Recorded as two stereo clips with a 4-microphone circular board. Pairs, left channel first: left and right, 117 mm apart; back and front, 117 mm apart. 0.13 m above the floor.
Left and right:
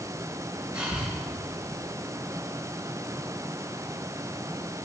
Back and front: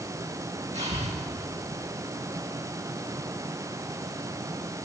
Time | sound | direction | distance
0.7 | breathing | 10° right | 4 m